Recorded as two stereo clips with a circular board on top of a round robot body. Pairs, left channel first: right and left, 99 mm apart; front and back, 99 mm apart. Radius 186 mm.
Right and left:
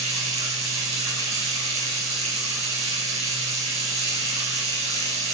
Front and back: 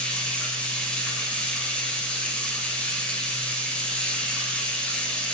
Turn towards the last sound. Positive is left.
turn(degrees=80)